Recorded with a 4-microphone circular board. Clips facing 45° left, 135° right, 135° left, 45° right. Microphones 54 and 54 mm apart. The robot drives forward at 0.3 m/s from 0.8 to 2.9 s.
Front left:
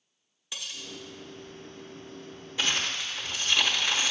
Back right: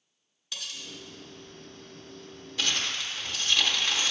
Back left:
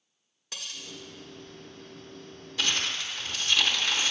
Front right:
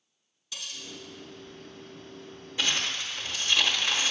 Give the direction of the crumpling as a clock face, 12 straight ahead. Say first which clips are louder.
Front left 1 dB, even; 12 o'clock.